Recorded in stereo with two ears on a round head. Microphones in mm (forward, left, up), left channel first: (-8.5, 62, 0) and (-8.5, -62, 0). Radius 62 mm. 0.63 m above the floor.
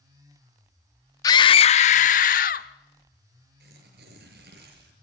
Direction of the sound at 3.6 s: 85° right.